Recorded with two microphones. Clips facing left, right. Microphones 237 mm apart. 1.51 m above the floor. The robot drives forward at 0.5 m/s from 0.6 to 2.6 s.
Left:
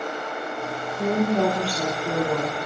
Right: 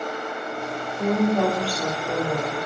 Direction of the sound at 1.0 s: 35° left (ahead or behind).